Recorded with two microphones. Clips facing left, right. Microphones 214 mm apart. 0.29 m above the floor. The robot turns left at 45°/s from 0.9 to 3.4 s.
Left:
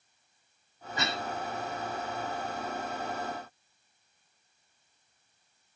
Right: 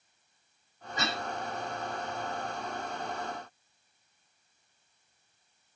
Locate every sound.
1.0 s a cough: 40° right (ahead or behind), 2.5 m; by 1.2 s 45° right (ahead or behind), 2.5 m